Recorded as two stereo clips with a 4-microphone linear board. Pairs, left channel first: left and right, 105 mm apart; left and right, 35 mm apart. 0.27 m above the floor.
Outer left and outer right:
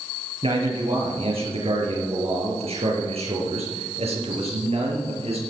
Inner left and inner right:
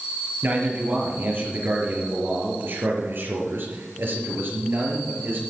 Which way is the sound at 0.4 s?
65° right (ahead or behind).